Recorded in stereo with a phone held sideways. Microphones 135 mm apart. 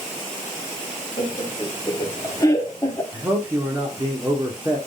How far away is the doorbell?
No doorbell in this recording.